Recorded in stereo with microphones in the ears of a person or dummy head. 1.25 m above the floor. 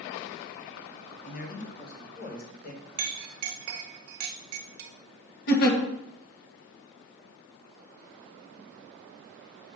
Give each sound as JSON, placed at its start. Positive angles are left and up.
{"t": 1.2, "sound": "a man speaking", "side_deg": 50, "distance_m": 1.5}
{"t": 3.0, "sound": "a clink", "side_deg": -50, "distance_m": 0.6}
{"t": 5.5, "sound": "a giggle", "side_deg": 55, "distance_m": 1.2}